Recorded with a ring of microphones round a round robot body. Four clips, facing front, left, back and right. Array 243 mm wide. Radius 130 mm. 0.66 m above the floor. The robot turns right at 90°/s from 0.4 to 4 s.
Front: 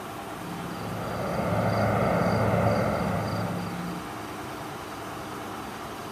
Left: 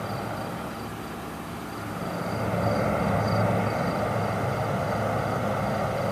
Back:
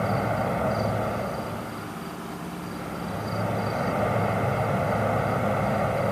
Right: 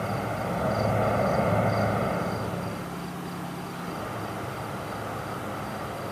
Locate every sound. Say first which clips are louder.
0.0 s an insect: right 2 dB, back 11 dB; 170° right; by 6.1 s 155° left